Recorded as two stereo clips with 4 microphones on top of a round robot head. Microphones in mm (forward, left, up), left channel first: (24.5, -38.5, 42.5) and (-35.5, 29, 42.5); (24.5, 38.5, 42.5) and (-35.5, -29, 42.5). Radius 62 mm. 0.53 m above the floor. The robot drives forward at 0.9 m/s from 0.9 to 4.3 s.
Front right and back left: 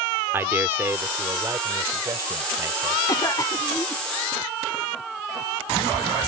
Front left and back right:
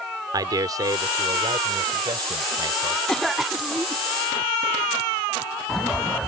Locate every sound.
0.3 s a man speaking: 165° right; by 3.0 s 175° right
3.1 s a cough: 35° right; by 4.0 s 95° right